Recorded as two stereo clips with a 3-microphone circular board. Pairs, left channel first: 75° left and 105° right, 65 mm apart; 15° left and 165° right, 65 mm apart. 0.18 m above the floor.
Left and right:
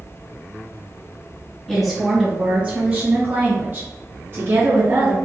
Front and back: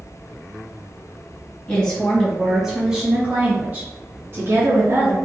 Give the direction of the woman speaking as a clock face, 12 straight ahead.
1 o'clock.